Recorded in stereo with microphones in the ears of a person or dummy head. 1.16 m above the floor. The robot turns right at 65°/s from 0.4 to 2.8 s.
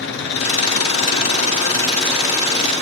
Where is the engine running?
70° left, 5 m; by 2.8 s 130° right, 5 m.